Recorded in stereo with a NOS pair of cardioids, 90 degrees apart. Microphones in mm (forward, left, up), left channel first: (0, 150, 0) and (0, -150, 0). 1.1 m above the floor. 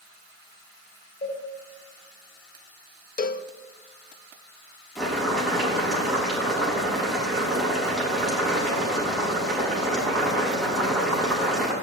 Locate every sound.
1.2 s a cowbell: 30° left, 6 m
3.2 s a cowbell: 30° left, 0.8 m
5.0 s boiling: straight ahead, 6.5 m